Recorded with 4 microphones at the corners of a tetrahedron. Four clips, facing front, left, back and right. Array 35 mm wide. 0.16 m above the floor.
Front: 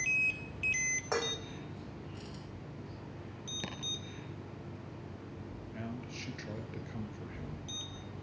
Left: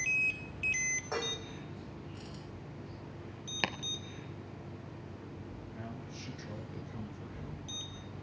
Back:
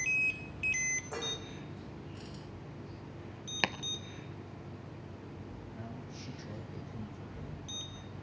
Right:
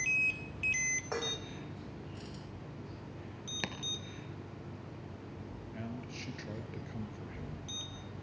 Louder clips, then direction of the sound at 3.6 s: Left 6 dB, back 15 dB; 160° left.